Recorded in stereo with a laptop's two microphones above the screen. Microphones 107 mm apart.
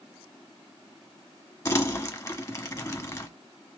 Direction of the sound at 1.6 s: 30° left (ahead or behind).